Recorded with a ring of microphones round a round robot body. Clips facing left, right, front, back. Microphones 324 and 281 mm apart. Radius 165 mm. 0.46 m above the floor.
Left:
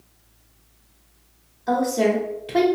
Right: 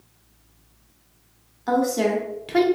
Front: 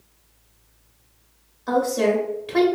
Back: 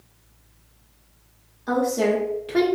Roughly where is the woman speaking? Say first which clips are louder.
Left 1 dB, front 1 dB; right.